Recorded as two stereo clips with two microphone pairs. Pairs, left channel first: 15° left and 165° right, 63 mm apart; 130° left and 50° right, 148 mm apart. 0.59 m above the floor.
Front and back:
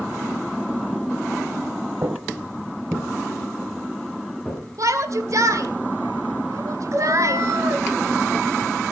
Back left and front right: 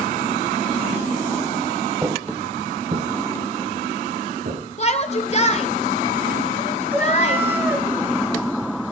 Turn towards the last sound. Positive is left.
turn(degrees=-125)